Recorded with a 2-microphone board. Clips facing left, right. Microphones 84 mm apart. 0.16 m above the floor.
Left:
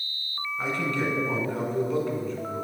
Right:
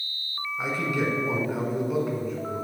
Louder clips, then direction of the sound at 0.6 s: Right 1 dB; 10° right (ahead or behind).